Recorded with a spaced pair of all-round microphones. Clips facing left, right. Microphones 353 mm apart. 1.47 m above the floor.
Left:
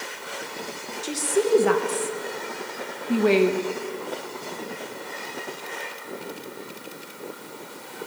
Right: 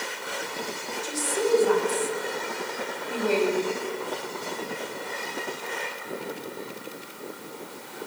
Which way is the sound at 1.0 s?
85° left.